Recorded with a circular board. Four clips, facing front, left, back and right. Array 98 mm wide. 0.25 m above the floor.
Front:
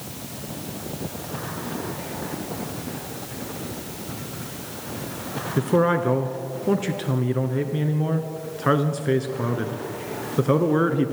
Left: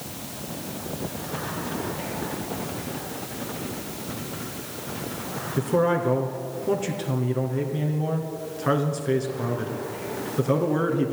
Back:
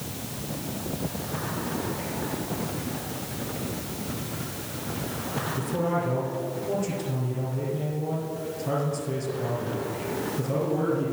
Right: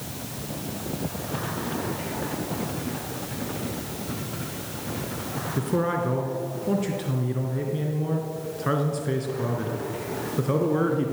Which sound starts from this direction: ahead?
A man speaking, at 5.6 s.